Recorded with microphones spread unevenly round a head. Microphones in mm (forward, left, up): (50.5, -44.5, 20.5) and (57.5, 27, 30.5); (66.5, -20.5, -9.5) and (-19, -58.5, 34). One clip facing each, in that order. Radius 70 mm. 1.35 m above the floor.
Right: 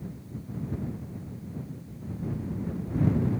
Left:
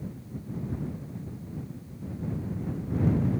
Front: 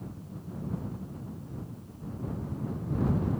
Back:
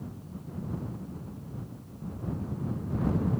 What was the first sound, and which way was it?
Only background noise.